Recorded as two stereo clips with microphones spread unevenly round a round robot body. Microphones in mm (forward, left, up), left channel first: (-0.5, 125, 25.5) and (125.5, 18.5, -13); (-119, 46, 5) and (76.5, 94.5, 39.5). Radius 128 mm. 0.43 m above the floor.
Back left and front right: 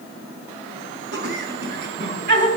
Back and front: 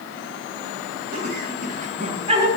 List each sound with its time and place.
1.1 s laughter: 40° right, 3 m; by 2.5 s 60° right, 3 m